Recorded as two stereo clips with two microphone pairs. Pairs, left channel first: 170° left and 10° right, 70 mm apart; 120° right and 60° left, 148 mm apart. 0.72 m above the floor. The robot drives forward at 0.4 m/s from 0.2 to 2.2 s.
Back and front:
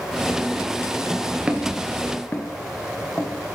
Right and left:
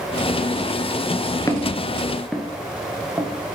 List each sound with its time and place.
1.5 s footsteps: 80° right, 0.7 m; by 3.5 s 120° left, 1.1 m